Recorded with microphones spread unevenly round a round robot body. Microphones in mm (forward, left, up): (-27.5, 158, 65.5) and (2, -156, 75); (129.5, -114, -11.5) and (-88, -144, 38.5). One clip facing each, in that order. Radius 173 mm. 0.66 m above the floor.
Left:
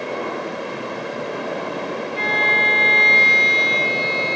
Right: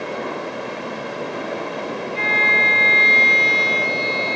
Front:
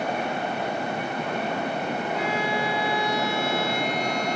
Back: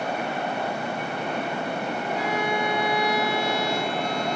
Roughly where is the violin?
Behind.